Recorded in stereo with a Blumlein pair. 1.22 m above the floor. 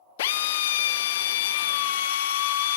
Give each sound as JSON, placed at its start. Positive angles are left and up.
{"t": 0.2, "sound": "a drill", "azimuth_deg": 55, "distance_m": 0.7}